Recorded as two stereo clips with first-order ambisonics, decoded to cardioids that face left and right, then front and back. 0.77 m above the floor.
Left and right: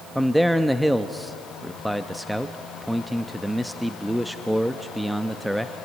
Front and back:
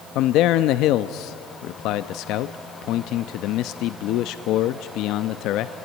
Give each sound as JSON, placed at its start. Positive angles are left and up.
{"t": 0.1, "sound": "a man speaking", "azimuth_deg": 0, "distance_m": 0.6}